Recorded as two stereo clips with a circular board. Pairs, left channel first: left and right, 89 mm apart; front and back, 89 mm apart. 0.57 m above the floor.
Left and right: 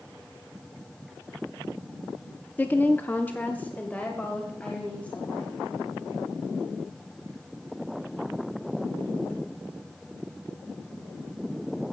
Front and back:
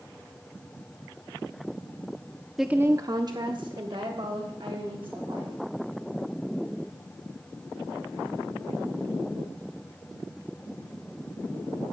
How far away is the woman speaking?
About 0.6 m.